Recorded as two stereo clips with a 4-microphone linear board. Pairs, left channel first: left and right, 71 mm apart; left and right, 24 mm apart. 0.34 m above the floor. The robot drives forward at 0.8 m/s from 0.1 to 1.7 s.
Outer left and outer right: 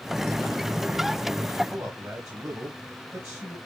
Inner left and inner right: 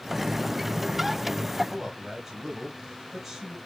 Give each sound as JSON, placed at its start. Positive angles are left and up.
{"t": 1.7, "sound": "a man speaking", "side_deg": -35, "distance_m": 1.8}